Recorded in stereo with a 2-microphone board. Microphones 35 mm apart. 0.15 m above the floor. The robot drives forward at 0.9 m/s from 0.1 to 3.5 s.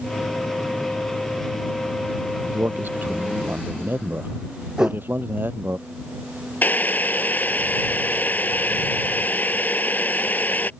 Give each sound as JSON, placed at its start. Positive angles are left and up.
{"t": 2.5, "sound": "a man speaking", "side_deg": -60}
{"t": 4.8, "sound": "a whoosh", "side_deg": -15}
{"t": 6.6, "sound": "boiling", "side_deg": 55}